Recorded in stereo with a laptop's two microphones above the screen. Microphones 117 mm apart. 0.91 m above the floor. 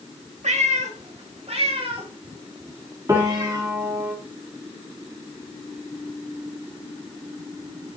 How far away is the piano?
About 1.7 m.